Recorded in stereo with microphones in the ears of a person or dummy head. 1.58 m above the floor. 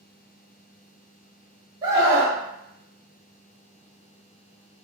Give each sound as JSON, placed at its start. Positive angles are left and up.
{"t": 1.8, "sound": "a scream", "side_deg": -35, "distance_m": 1.1}